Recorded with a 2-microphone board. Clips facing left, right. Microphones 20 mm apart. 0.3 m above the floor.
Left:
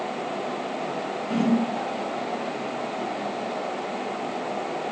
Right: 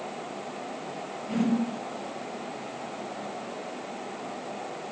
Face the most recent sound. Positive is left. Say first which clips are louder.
# left 3 dB
turn(degrees=10)  # may be behind; listen again after turning